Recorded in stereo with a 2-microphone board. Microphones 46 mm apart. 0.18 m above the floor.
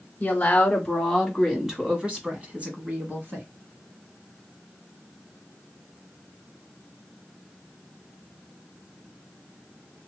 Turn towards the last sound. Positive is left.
turn(degrees=-45)  # may be behind; listen again after turning